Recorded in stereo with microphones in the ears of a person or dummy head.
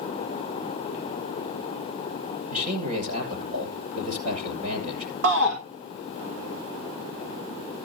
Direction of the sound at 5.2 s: 65° right (ahead or behind).